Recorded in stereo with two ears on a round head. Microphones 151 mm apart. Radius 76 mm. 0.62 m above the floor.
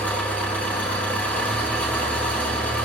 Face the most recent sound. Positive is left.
turn(degrees=10)  # may be behind; listen again after turning